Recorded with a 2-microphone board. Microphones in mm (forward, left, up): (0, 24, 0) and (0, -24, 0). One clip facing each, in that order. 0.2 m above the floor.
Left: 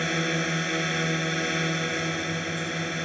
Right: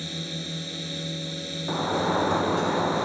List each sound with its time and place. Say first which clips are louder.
0.0 s a drone: left 9 dB; 65° left (ahead or behind)
1.7 s a sliding door: right 3 dB; 80° right